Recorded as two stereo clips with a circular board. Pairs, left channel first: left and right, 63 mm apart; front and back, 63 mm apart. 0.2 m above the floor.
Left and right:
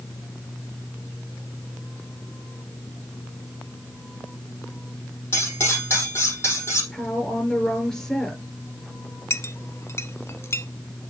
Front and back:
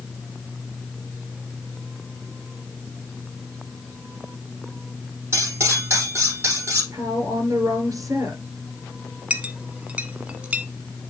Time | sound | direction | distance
5.3 | cutlery clinking | 135° left | 4.5 m
6.9 | a woman speaking | 165° left | 3.5 m
9.3 | a clink | 115° left | 0.9 m